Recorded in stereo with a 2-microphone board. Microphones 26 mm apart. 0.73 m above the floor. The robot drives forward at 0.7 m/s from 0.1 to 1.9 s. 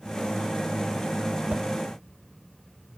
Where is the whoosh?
65° right (ahead or behind), 0.7 m; by 1.6 s 75° right (ahead or behind), 0.6 m.